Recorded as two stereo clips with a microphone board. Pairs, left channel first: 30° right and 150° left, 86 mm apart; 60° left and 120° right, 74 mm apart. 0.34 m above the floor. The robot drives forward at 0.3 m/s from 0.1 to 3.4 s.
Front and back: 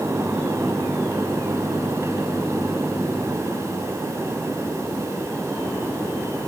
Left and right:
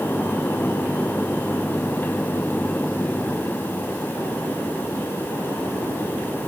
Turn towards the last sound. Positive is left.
No sound to turn to.